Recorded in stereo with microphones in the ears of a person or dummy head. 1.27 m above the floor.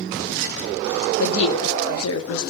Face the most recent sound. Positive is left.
turn(degrees=75)  # may be behind; listen again after turning